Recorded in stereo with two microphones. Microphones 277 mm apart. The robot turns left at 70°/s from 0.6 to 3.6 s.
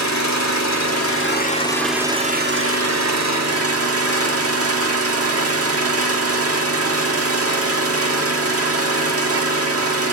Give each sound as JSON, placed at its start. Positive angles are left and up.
{"t": 0.0, "sound": "an engine running", "azimuth_deg": 90, "distance_m": 1.5}